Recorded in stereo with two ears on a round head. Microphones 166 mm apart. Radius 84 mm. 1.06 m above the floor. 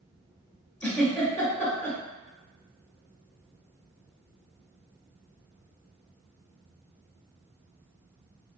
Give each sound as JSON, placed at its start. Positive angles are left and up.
{"t": 0.8, "sound": "a giggle", "side_deg": 15, "distance_m": 1.1}